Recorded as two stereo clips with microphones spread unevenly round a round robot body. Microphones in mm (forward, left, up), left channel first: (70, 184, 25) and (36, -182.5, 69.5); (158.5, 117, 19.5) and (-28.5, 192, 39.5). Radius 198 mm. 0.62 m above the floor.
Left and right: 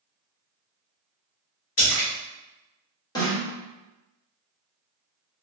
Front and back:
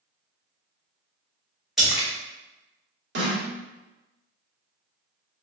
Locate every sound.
1.8 s a splash: 65° left, 1.5 m
3.1 s a snare drum: 155° left, 0.9 m